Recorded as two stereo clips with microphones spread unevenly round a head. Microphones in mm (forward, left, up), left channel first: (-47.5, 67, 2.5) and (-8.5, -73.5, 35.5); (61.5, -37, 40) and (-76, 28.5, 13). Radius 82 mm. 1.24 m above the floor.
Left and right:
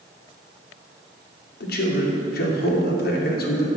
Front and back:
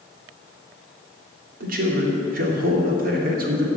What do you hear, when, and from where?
1.6 s a man speaking: 120° left, 2.5 m